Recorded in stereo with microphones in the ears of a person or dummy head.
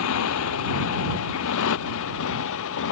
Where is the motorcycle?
80° left; by 2.9 s 70° left (ahead or behind).